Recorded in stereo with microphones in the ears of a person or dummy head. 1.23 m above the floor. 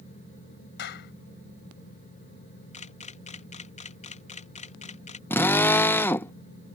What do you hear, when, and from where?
0.8 s a clap: 55° left (ahead or behind)
2.7 s a camera shutter: 30° left (ahead or behind)
5.3 s a drill: 10° left (ahead or behind)